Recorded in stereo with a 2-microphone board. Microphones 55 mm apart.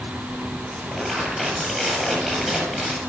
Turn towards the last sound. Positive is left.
turn(degrees=5)  # may be behind; listen again after turning